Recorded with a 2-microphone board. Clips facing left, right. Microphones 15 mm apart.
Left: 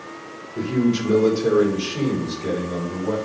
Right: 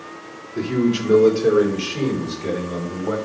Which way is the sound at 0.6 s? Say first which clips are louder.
Right 1 dB; 75° right (ahead or behind).